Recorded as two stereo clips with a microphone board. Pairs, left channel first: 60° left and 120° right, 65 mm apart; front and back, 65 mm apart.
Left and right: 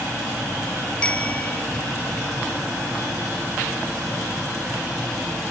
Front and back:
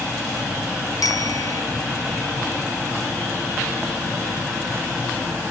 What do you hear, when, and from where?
1.0 s a bicycle bell: 10° right